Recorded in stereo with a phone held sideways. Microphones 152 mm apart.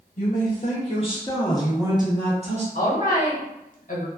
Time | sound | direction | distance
0.2 | a man speaking | 70° left (ahead or behind) | 1.0 m
2.8 | a woman speaking | 60° left (ahead or behind) | 0.9 m